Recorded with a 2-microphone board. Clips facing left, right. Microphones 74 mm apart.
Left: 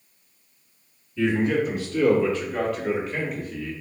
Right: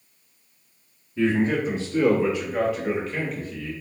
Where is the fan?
I don't hear a fan.